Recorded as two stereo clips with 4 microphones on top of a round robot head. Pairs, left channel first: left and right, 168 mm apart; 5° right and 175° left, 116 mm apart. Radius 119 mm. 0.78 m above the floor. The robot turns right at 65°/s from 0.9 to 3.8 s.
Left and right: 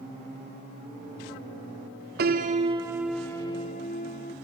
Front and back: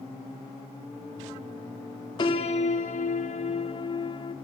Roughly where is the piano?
Ahead right.